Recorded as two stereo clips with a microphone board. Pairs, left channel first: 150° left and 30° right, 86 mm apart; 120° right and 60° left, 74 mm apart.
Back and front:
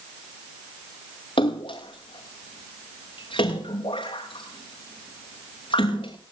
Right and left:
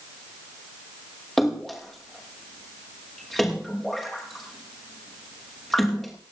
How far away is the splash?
About 5.5 m.